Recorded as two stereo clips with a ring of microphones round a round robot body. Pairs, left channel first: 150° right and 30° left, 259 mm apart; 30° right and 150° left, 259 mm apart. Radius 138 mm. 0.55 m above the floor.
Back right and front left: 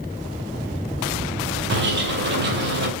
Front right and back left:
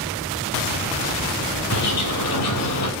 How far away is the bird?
About 3 m.